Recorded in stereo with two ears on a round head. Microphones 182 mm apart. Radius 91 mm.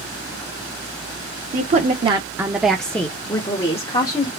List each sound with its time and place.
1.5 s a woman speaking: 40° right (ahead or behind), 0.9 m; by 4.3 s 35° left (ahead or behind), 1.4 m